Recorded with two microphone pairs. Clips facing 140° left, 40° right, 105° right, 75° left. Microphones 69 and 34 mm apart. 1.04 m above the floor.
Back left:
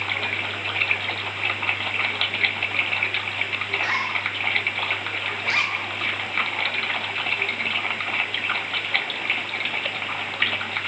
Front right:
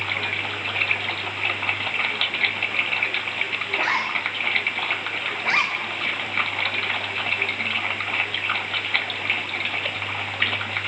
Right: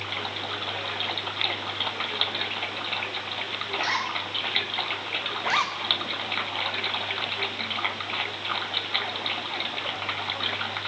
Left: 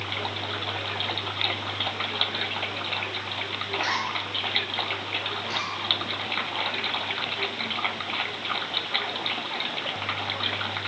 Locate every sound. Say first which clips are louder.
3.7 s a zipper: front right 2 dB, even; 5° right, 1.6 m
5.4 s a zipper: front right 3 dB, right 4 dB; 105° right, 0.6 m